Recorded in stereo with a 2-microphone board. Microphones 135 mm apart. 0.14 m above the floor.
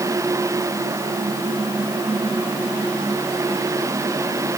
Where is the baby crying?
No baby crying in this recording.